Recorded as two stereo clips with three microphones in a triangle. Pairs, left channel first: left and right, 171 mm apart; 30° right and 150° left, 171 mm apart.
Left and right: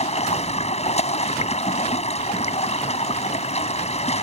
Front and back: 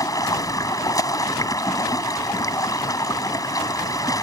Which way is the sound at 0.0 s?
40° left.